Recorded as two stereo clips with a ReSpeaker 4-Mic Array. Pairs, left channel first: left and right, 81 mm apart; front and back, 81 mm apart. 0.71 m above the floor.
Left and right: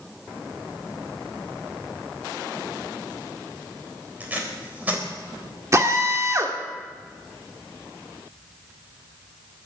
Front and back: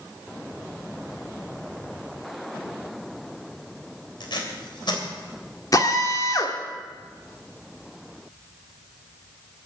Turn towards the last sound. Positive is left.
turn(degrees=-40)